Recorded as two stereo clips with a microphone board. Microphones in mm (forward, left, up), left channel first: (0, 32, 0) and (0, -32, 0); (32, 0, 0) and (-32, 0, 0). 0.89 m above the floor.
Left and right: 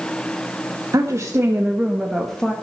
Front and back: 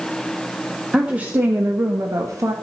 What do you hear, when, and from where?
0.9 s a woman speaking: 105° right, 1.5 m; by 2.5 s 165° left, 1.6 m